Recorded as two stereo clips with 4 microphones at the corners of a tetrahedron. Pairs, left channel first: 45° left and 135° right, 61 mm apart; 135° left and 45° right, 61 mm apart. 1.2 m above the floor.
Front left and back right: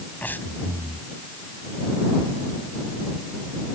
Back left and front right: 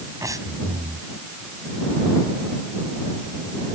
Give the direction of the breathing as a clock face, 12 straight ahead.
1 o'clock.